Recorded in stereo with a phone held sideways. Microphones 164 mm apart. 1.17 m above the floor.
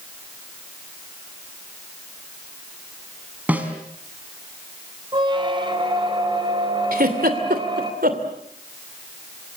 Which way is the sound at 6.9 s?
60° right (ahead or behind).